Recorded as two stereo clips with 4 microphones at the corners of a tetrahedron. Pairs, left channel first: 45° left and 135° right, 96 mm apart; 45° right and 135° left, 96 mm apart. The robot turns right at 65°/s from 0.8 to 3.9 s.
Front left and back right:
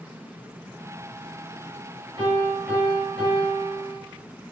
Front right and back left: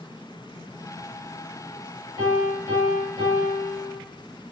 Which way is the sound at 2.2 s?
95° right.